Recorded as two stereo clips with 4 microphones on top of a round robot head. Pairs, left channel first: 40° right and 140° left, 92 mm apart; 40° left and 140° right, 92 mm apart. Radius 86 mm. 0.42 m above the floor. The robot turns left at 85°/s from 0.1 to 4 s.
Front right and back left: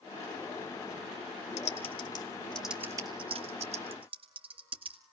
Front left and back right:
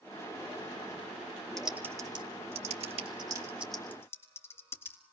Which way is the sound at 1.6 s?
45° right.